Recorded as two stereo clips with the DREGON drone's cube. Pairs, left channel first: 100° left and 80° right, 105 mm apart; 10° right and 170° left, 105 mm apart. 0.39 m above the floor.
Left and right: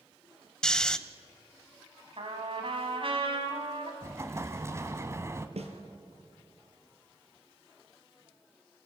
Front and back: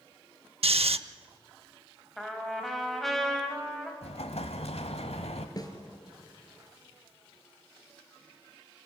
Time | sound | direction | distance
0.6 | snoring | straight behind | 0.6 m
2.2 | a trumpet | 100° right | 2.5 m
4.0 | an explosion | 15° right | 1.1 m
5.6 | a snare drum | 65° right | 2.5 m